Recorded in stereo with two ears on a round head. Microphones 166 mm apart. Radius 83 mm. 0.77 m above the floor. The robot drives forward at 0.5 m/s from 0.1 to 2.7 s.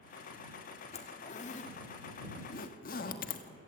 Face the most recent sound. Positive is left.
turn(degrees=50)  # may be behind; listen again after turning